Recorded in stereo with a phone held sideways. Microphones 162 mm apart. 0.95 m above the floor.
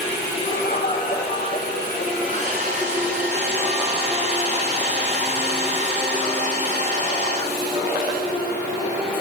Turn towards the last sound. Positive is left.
turn(degrees=-50)  # may be behind; listen again after turning